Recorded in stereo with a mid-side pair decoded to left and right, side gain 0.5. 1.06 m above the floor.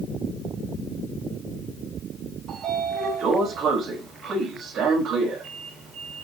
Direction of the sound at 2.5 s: 65° right.